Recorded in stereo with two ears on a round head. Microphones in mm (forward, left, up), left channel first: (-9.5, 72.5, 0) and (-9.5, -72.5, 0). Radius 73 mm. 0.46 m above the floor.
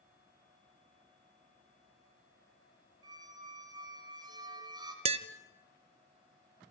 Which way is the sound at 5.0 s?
35° right (ahead or behind).